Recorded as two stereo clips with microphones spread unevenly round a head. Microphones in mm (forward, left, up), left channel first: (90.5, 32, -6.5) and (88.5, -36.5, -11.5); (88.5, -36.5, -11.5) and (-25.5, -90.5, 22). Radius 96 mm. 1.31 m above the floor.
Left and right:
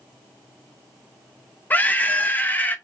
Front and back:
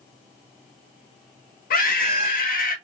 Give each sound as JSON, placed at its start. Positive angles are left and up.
{"t": 1.7, "sound": "a scream", "azimuth_deg": 25, "distance_m": 1.4}